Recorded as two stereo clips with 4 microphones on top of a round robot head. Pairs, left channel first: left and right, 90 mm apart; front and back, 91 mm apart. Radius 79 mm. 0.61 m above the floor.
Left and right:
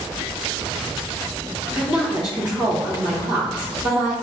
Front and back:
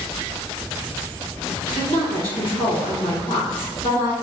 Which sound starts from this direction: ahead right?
A woman speaking, at 1.7 s.